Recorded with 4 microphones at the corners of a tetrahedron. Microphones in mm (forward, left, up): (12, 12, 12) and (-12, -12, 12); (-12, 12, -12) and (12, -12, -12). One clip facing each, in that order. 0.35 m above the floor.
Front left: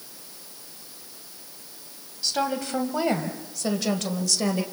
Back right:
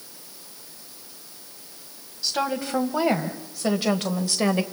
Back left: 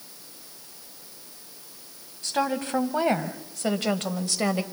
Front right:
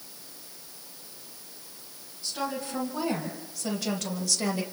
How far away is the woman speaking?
About 2.5 m.